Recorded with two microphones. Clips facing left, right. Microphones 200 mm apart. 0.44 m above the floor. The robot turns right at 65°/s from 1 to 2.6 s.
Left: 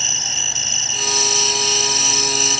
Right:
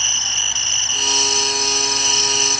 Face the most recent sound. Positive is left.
turn(degrees=150)